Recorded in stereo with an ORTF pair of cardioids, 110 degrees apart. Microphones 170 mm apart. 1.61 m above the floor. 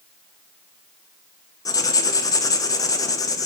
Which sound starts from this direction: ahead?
Writing, at 1.6 s.